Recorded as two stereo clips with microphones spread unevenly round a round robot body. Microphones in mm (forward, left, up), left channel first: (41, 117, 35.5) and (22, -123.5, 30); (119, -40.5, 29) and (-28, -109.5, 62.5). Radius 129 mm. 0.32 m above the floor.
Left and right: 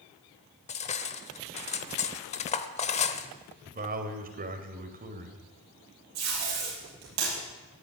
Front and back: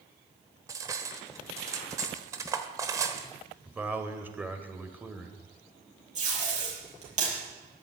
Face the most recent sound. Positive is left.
turn(degrees=-115)